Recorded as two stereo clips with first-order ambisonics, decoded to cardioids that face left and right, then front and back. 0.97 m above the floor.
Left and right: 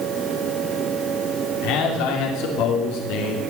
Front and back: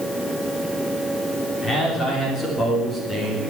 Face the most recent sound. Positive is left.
turn(degrees=75)